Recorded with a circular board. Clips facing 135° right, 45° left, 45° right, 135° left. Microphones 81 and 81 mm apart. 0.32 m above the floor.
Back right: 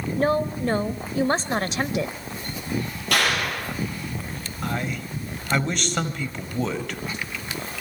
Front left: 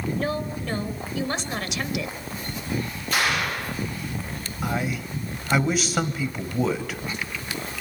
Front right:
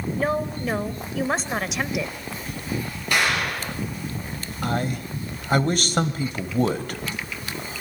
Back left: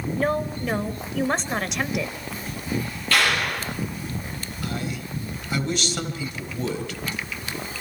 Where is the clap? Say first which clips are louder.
Back right 1 dB, back left 1 dB; 120° right, 8 m.